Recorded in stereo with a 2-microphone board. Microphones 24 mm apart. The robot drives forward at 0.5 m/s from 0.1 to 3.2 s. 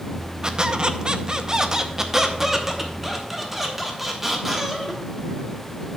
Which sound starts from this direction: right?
A squeak, at 0.4 s.